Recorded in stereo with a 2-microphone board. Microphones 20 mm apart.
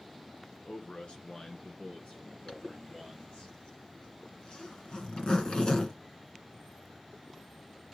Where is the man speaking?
65° left (ahead or behind), 2.5 m; by 3.5 s 75° left (ahead or behind), 3.5 m.